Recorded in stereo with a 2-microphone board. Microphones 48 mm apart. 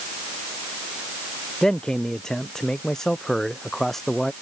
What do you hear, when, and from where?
1.6 s a man speaking: 15° left (ahead or behind); by 4.3 s 5° left (ahead or behind)